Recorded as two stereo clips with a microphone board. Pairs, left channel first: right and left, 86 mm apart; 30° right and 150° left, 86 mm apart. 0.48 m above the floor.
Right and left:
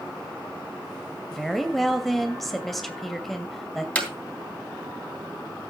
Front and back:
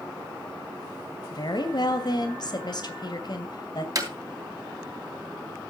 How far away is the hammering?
About 3.5 m.